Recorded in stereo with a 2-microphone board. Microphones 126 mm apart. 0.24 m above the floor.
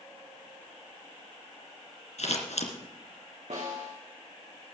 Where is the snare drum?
60° right (ahead or behind), 5.5 m.